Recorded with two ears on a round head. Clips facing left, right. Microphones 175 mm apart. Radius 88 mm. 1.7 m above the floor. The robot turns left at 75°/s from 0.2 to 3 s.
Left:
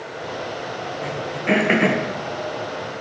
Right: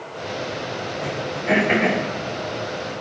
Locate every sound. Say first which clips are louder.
1.0 s throat clearing: left 1 dB; centre (ahead or behind), 1.7 m; by 2.0 s 75° left (ahead or behind), 1.7 m